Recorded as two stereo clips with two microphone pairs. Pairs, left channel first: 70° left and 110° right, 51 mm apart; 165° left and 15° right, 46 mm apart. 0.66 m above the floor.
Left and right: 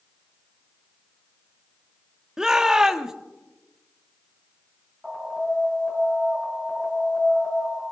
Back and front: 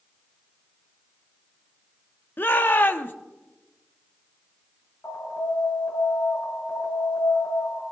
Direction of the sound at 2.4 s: 175° left.